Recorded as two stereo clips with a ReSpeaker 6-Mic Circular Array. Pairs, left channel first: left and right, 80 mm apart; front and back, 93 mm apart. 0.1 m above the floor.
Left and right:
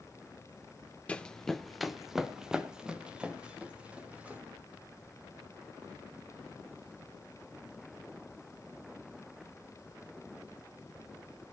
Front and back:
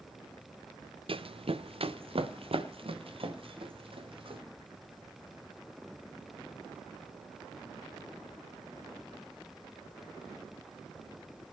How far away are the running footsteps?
About 0.9 m.